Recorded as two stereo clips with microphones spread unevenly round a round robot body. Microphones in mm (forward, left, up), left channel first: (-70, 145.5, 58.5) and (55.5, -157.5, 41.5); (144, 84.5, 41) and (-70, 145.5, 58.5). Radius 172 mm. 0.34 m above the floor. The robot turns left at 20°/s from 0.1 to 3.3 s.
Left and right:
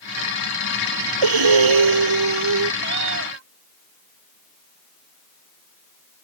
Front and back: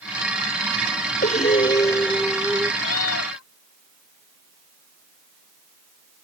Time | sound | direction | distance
1.2 | breathing | 85° right | ?
2.8 | a cat meowing | 5° right | ?